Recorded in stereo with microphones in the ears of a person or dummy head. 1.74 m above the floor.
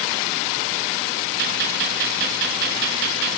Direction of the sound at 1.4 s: 55° right (ahead or behind).